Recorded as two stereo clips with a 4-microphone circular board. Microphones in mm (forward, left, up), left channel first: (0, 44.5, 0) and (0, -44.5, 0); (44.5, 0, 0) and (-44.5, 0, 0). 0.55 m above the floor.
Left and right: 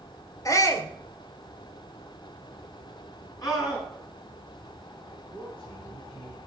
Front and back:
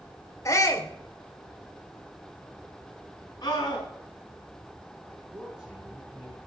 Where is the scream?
45° left, 6.5 m.